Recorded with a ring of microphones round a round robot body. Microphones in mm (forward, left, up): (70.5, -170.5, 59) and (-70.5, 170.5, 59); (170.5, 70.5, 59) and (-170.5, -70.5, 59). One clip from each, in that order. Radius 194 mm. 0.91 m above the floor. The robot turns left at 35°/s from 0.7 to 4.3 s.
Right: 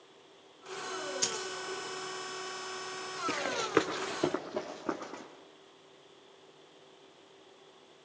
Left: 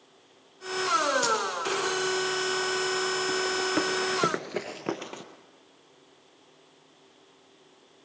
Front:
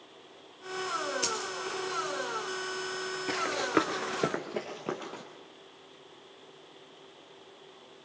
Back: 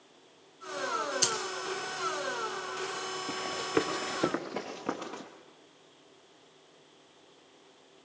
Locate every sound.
1.2 s a dropped coin: 145° right, 2 m; by 1.4 s 155° right, 2 m
3.3 s running footsteps: 25° right, 1.3 m; by 5.2 s 115° left, 1.9 m